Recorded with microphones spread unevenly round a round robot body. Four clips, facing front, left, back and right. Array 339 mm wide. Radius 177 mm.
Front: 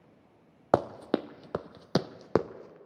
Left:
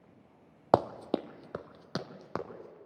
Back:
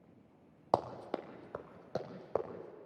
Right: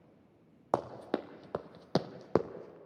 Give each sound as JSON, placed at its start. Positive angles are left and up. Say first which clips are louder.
{"t": 0.7, "sound": "running footsteps", "louder": "left 6 dB, front 7 dB", "azimuth_deg": 50, "distance_m": 0.7}